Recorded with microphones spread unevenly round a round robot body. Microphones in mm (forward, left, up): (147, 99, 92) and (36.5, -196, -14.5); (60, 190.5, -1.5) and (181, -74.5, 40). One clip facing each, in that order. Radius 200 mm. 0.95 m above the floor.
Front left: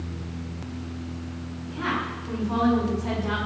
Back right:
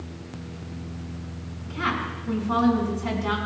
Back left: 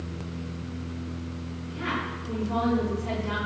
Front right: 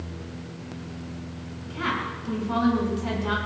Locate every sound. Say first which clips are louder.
1.6 s a woman speaking: even, front right 2 dB; 105° right, 7.5 m